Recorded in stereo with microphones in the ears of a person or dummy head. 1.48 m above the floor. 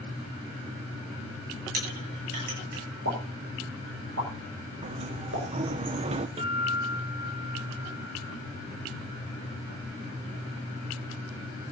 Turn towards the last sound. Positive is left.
turn(degrees=-35)  # may be behind; listen again after turning